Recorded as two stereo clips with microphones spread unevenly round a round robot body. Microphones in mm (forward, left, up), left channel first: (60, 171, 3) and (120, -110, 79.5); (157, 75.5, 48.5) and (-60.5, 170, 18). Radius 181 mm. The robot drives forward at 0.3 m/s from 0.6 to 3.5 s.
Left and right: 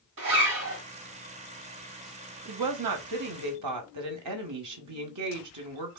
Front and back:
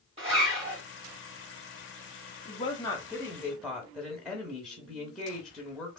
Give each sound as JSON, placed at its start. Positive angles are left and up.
{"t": 0.2, "sound": "a zipper", "azimuth_deg": -130, "distance_m": 1.5}
{"t": 2.5, "sound": "a woman speaking", "azimuth_deg": -95, "distance_m": 0.9}